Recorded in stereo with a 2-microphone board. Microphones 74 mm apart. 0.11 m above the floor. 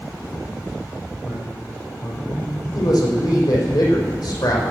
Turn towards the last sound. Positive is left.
turn(degrees=65)  # may be behind; listen again after turning